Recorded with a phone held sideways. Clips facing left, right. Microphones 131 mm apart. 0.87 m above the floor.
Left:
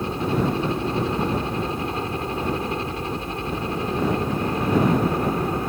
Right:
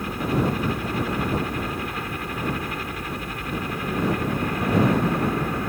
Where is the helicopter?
25° left (ahead or behind).